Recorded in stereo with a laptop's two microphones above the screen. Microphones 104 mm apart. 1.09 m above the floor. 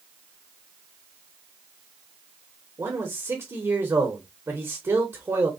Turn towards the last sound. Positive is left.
turn(degrees=-30)  # may be behind; listen again after turning